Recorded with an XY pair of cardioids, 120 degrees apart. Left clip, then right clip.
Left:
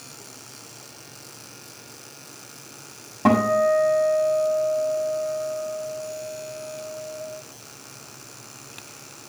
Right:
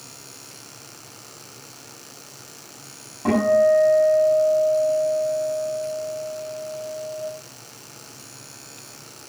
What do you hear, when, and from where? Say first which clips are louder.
3.2 s a guitar: right 2 dB; 55° left, 6 m